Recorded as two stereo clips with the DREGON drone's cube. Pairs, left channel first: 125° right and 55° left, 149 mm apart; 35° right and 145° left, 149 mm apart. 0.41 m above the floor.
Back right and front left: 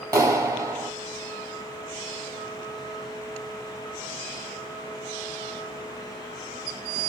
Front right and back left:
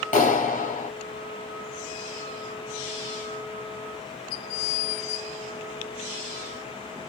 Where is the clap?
10° right, 2 m.